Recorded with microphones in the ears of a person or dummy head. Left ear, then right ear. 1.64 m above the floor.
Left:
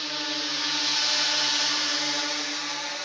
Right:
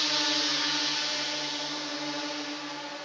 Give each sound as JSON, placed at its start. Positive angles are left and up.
{"t": 0.0, "sound": "a drone", "side_deg": -10}